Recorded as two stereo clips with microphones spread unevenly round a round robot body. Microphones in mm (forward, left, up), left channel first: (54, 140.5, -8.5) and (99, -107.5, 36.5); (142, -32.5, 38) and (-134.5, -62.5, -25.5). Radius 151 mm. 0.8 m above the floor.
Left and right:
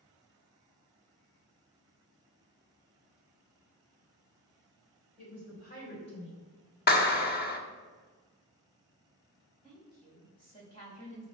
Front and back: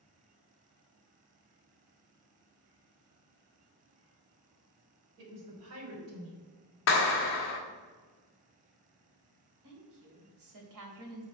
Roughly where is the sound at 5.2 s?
Behind.